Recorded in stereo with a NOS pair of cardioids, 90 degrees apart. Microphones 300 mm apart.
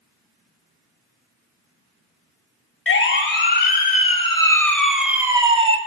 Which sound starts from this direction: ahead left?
A siren, at 2.9 s.